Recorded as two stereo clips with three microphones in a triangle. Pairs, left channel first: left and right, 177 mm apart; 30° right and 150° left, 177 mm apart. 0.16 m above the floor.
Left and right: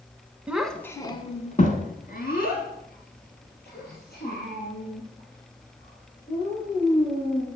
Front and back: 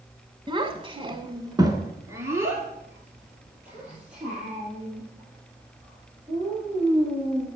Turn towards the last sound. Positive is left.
turn(degrees=65)